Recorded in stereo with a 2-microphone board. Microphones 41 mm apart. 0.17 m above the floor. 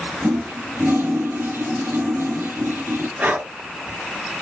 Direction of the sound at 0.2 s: 70° right (ahead or behind).